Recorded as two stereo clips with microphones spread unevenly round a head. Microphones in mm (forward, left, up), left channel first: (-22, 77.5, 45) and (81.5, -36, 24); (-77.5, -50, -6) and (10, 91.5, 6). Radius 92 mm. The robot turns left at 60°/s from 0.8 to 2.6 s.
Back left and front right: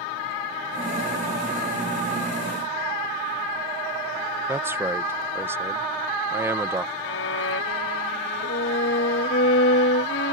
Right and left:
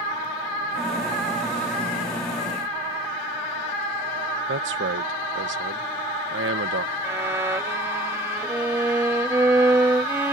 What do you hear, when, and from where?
4.5 s a man speaking: 30° left
7.0 s a violin: 135° left